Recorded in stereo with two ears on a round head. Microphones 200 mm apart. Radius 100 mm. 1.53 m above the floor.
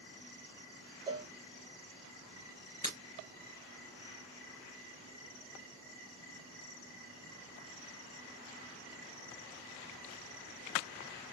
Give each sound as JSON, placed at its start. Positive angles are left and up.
{"t": 1.1, "sound": "a cowbell", "side_deg": -20, "distance_m": 0.7}
{"t": 2.8, "sound": "breaking glass", "side_deg": 20, "distance_m": 2.5}